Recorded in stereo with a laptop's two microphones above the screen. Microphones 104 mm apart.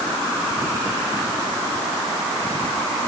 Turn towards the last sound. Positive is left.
No sound to turn to.